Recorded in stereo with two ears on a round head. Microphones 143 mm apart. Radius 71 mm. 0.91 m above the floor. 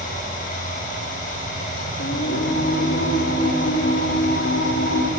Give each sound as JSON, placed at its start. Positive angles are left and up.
{"t": 0.0, "sound": "running water", "side_deg": 55, "distance_m": 7.5}
{"t": 2.0, "sound": "singing", "side_deg": 75, "distance_m": 3.0}